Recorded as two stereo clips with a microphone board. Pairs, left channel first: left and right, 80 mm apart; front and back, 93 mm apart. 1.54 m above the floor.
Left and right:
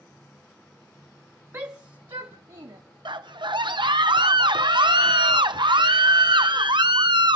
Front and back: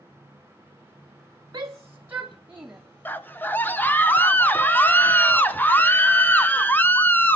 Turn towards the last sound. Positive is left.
turn(degrees=-70)